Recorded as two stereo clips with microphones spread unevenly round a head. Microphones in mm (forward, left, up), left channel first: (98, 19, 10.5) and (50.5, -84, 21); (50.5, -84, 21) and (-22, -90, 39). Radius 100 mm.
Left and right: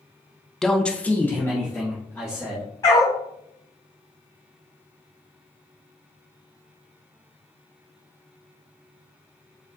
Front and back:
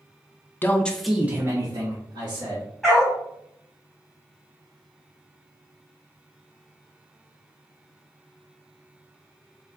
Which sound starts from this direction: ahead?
A man speaking, at 0.6 s.